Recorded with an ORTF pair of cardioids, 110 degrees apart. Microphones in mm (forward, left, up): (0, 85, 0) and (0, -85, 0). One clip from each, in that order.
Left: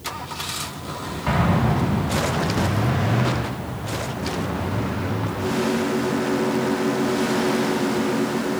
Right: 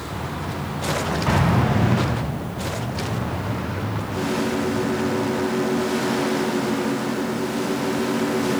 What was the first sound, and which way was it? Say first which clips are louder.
An explosion: left 2 dB; straight ahead.